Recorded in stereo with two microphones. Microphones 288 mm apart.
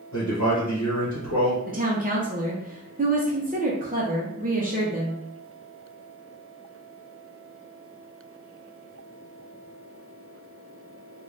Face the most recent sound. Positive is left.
turn(degrees=-30)  # may be behind; listen again after turning